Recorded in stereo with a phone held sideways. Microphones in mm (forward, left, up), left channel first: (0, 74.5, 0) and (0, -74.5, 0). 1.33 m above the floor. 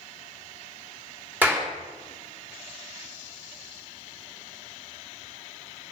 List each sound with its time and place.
1.4 s a clap: 15° right (ahead or behind), 3 m